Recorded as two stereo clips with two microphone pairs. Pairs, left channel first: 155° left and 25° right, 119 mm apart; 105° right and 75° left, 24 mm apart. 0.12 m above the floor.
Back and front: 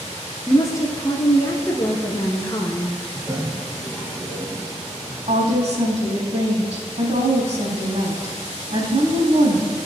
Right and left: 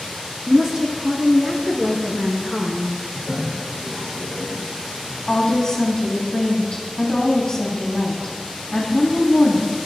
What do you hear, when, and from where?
0.5 s a woman speaking: 130° left, 1.2 m
3.1 s a toilet flushing: 70° left, 4 m
5.3 s a woman speaking: 50° right, 3.5 m